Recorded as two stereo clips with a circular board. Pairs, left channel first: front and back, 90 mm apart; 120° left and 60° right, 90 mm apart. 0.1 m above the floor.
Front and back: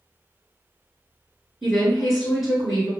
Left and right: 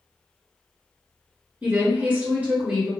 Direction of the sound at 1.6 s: 95° right.